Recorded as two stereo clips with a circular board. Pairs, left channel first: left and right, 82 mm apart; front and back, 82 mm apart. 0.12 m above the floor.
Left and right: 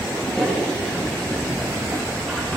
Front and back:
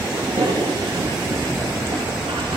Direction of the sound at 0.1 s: 175° left.